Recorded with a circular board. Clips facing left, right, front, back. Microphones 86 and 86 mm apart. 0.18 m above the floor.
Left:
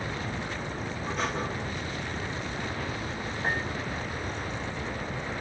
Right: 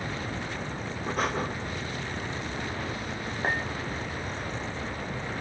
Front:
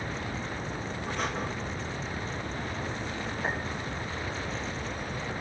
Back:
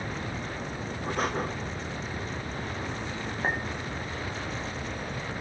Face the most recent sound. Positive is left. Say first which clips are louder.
# right 1 dB, back 3 dB
turn(degrees=-130)